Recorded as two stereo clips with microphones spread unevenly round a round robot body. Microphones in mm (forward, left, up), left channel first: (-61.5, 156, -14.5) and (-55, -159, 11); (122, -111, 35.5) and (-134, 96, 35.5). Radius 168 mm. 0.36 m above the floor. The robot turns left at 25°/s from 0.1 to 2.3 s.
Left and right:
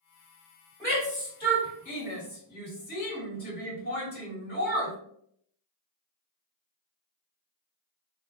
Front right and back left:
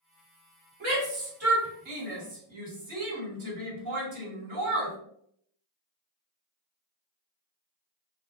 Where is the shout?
170° left, 1.9 m; by 5.0 s 130° left, 1.9 m.